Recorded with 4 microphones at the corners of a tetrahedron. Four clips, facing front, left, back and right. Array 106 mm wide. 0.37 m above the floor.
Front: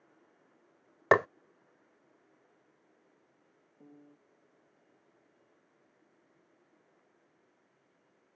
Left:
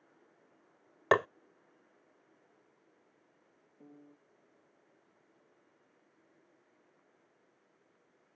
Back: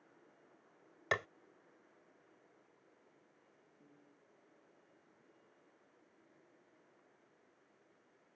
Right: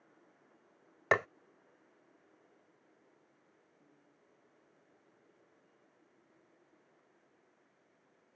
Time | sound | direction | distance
1.1 | tapping | 15° left | ?
3.8 | a piano | 50° left | ?